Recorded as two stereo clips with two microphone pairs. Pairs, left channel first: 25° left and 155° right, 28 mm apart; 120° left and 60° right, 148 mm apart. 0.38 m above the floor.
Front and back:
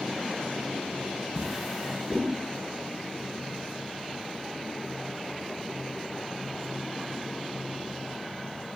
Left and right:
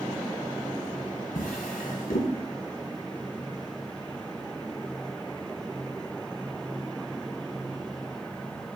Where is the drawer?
115° left, 1.5 m.